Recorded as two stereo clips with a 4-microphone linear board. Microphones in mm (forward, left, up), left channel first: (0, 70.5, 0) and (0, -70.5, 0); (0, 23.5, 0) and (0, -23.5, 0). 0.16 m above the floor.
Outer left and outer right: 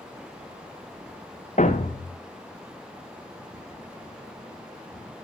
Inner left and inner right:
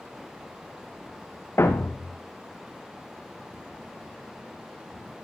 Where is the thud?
60° left (ahead or behind), 3 m.